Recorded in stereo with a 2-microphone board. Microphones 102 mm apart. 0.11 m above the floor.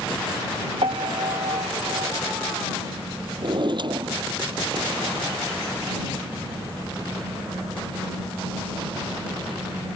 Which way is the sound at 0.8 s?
70° right (ahead or behind).